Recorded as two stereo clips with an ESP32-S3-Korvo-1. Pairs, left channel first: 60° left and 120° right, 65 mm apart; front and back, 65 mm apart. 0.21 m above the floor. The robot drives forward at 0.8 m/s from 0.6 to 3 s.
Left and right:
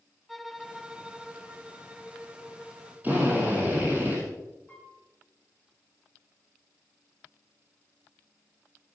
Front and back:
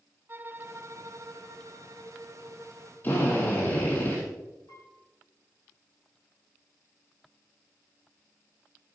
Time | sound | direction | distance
0.3 | a violin | 155° left | 0.6 m
3.0 | a drill | 60° right | 5.5 m
4.7 | a piano | straight ahead | 3.5 m